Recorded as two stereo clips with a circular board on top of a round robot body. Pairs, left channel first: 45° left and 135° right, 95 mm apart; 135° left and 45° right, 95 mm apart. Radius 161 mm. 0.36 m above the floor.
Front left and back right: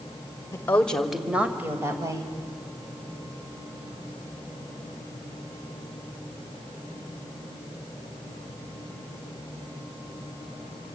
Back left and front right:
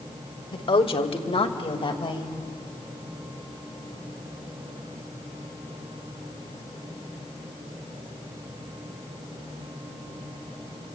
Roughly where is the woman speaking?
Left.